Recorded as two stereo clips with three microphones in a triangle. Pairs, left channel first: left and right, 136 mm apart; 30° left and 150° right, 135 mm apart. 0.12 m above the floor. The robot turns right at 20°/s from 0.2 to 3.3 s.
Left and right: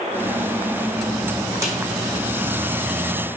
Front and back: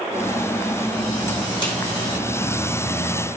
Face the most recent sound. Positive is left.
turn(degrees=10)